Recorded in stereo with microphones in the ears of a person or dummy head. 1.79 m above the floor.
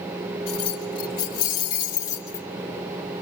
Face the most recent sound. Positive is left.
turn(degrees=20)  # may be behind; listen again after turning